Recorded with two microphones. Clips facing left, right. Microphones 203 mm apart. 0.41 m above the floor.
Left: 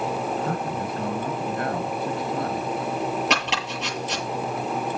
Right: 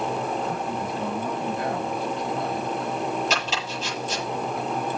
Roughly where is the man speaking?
Left.